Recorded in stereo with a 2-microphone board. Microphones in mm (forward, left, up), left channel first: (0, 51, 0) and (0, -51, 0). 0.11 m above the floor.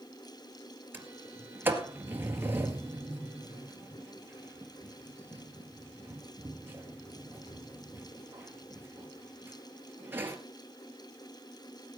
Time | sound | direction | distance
0.9 | a sliding door | 20° right (ahead or behind) | 2 m